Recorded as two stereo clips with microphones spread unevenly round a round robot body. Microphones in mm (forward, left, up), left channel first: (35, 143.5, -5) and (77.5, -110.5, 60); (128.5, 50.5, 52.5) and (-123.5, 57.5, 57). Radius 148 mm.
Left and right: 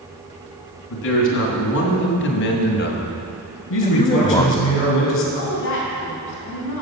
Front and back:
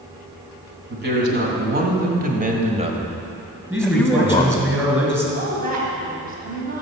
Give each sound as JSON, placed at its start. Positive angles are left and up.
{"t": 0.9, "sound": "a man speaking", "azimuth_deg": 135, "distance_m": 2.5}
{"t": 3.7, "sound": "a man speaking", "azimuth_deg": 100, "distance_m": 3.0}
{"t": 5.3, "sound": "a woman speaking", "azimuth_deg": 125, "distance_m": 3.0}